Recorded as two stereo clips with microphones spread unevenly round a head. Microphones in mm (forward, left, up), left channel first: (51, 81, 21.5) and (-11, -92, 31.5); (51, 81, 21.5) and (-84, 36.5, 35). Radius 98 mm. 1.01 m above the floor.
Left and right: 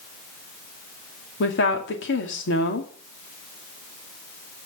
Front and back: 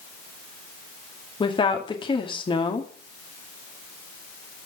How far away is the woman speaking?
About 2.5 m.